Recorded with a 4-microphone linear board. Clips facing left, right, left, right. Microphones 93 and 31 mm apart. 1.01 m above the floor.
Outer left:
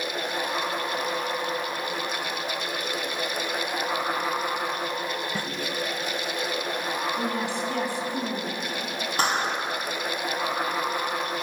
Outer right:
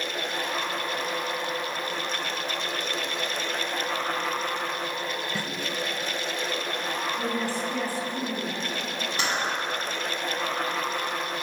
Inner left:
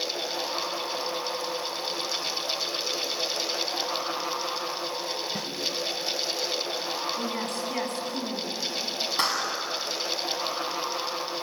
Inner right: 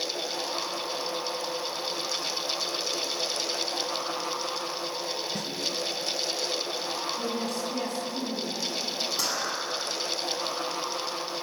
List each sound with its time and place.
5.3 s a snare drum: 15° left (ahead or behind), 2.5 m
7.2 s a woman speaking: 60° left (ahead or behind), 9 m
9.2 s a clap: 40° left (ahead or behind), 8 m